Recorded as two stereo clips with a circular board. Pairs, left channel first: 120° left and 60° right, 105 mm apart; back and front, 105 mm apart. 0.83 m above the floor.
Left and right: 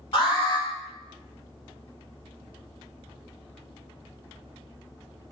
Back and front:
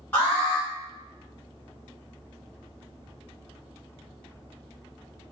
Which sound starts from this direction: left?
An alarm, at 0.1 s.